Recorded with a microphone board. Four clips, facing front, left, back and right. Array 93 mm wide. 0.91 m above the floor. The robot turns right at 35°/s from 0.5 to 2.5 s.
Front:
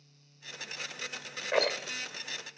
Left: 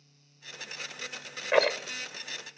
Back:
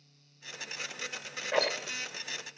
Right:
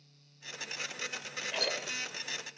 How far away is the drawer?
I don't hear a drawer.